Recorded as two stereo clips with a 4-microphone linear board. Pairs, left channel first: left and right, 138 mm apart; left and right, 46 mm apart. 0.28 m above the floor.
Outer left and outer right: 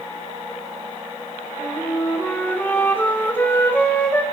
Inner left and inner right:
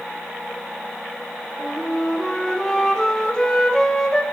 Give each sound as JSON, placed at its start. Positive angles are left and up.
{"t": 1.6, "sound": "a flute", "side_deg": 15, "distance_m": 1.2}